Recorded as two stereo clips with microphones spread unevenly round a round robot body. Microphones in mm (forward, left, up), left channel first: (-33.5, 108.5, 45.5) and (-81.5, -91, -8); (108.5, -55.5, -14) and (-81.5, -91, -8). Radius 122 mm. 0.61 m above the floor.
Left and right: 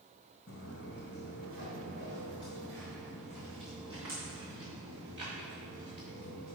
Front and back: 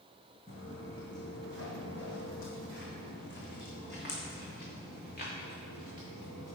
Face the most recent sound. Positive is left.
turn(degrees=-40)